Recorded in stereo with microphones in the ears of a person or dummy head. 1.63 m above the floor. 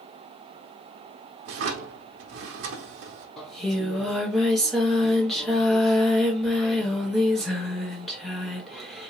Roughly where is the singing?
Centre.